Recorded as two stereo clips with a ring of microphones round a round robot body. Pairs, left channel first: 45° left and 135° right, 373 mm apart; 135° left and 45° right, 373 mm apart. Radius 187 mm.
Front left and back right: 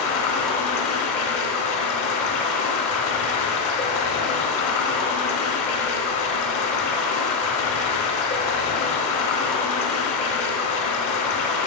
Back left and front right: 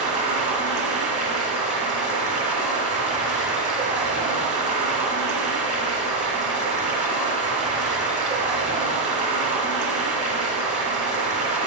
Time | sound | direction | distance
0.0 | running water | 20° left | 1.6 m